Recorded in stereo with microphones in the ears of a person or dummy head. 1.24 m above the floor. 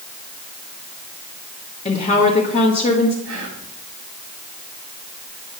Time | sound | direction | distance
1.9 | a woman speaking | 40° left (ahead or behind) | 1.4 m
3.2 | whispering | 65° right (ahead or behind) | 3 m